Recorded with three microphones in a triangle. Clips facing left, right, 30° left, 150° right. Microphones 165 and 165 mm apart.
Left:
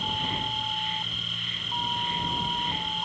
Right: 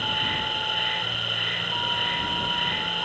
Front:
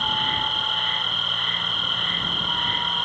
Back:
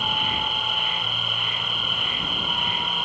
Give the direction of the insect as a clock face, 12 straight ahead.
2 o'clock.